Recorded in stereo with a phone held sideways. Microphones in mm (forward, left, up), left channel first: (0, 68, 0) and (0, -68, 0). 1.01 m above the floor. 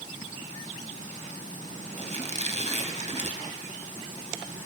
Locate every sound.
2.0 s a squeak: 55° right (ahead or behind), 1.3 m